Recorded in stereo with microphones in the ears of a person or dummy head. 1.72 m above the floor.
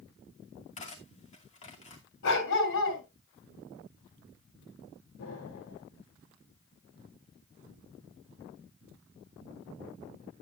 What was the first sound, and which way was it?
Cutlery clinking, 35° left (ahead or behind).